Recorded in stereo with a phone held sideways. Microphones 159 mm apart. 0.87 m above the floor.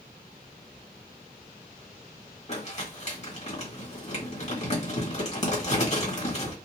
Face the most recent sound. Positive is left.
turn(degrees=45)  # may be behind; listen again after turning